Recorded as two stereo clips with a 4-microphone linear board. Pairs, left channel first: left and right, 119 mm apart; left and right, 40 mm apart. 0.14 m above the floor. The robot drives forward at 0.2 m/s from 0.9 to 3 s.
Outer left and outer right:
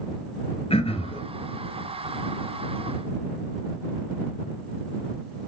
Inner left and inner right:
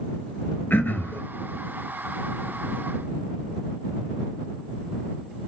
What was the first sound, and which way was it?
Throat clearing, 55° left (ahead or behind).